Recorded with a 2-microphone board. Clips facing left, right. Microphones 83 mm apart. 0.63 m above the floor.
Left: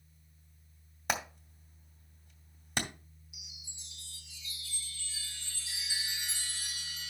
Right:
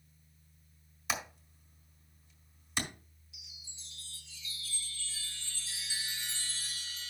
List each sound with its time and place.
1.1 s hammering: 60° left (ahead or behind), 2.5 m
3.3 s a chime: 20° left (ahead or behind), 0.9 m